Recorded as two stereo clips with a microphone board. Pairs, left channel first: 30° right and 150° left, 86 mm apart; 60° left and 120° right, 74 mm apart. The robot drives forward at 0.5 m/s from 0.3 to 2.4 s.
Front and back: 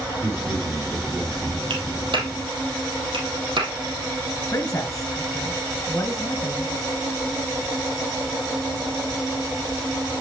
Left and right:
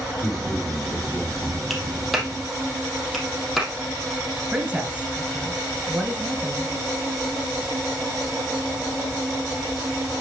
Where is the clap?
150° left, 2.5 m; by 3.7 s 155° left, 2.5 m.